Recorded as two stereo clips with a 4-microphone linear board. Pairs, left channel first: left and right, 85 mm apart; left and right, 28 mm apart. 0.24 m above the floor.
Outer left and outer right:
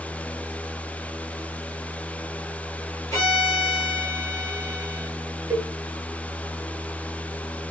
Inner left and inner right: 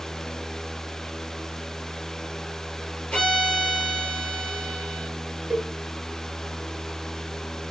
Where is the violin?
35° left (ahead or behind), 3 m.